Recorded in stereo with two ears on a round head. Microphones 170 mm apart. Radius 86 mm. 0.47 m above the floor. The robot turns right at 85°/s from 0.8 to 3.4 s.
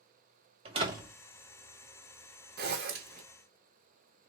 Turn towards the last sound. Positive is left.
turn(degrees=-40)